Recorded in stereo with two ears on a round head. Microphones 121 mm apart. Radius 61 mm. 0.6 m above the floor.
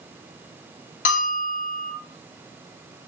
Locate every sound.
1.1 s a bell: 65° left (ahead or behind), 0.5 m